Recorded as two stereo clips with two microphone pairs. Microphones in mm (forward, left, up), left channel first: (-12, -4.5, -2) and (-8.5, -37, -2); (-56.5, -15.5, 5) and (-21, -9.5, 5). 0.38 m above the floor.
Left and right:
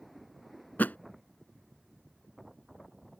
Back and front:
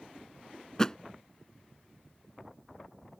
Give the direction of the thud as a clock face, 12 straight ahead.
8 o'clock.